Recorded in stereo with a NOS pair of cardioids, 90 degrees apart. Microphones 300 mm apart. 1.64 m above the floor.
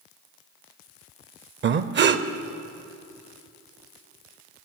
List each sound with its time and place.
1.6 s breathing: 40° right, 0.6 m